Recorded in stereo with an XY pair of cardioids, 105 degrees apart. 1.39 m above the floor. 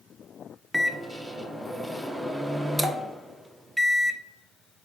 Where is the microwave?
Straight ahead, 0.5 m.